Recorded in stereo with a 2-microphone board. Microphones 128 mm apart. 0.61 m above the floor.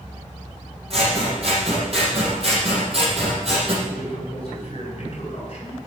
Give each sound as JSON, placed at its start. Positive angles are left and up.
{"t": 0.9, "sound": "scissors", "side_deg": -50, "distance_m": 5.5}
{"t": 3.9, "sound": "a man speaking", "side_deg": 45, "distance_m": 8.5}